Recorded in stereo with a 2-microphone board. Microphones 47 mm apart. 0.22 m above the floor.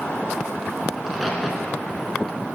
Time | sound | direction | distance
1.0 | a crack | centre (ahead or behind) | 0.9 m